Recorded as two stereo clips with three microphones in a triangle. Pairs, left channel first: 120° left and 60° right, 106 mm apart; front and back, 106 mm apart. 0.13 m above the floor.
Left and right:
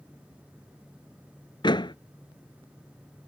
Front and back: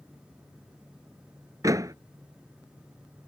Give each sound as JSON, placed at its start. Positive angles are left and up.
{"t": 1.6, "sound": "a door slam", "azimuth_deg": 135}